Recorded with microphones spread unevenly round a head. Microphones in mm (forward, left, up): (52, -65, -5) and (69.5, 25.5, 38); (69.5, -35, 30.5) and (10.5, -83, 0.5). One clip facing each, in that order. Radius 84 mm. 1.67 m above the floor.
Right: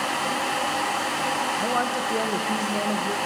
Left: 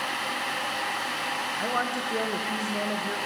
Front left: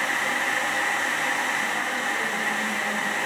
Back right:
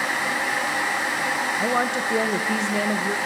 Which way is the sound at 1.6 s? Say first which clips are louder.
Right 4 dB, back right 5 dB; straight behind.